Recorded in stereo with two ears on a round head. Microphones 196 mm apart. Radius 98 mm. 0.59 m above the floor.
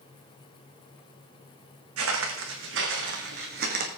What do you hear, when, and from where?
2.0 s footsteps: 70° right (ahead or behind), 3 m; by 3.9 s 40° right (ahead or behind), 2.5 m